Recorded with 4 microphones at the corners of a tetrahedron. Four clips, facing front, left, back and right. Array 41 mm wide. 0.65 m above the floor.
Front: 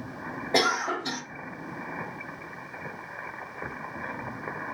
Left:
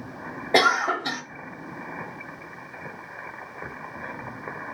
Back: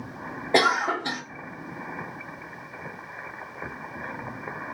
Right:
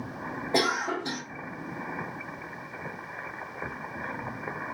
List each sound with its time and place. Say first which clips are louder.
0.5 s a cough: left 7 dB, back 4 dB; 120° left, 1.1 m